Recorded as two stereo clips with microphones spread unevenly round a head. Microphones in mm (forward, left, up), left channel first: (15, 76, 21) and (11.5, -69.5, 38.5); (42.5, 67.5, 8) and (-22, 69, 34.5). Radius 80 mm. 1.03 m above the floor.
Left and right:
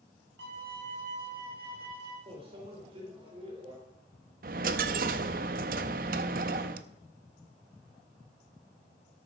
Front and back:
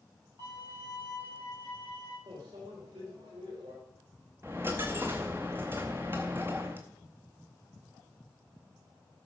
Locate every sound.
0.4 s a violin: 115° right, 4.5 m
2.3 s a microwave: 150° right, 3 m
4.4 s a dropped coin: 120° right, 0.6 m